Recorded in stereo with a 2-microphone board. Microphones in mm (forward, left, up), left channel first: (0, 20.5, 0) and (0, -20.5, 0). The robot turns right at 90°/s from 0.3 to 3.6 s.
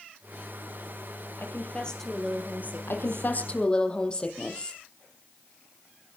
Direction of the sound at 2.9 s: 90° left.